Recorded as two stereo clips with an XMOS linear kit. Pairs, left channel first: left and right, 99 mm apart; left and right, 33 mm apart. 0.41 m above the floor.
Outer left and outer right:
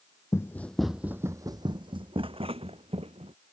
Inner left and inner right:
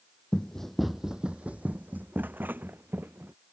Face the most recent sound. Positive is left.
turn(degrees=-75)  # may be behind; listen again after turning